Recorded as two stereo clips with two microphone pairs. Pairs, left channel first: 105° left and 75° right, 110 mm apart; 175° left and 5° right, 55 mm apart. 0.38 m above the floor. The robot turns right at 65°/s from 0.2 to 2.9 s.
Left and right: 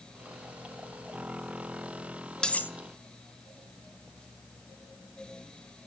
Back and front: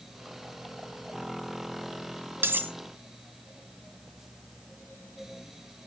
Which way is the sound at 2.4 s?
20° left.